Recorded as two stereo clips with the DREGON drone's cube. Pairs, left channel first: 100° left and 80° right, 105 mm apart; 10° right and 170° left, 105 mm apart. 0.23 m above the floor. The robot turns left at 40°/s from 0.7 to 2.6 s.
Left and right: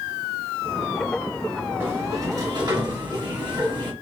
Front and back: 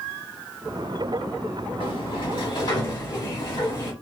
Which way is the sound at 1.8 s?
20° right.